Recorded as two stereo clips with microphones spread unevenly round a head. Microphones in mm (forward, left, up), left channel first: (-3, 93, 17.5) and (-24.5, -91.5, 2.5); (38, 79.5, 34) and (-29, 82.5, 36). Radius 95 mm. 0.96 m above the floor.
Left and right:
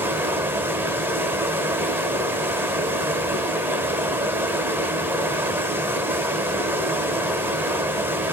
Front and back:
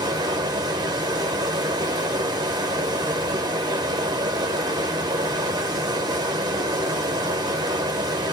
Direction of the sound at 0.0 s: Straight behind.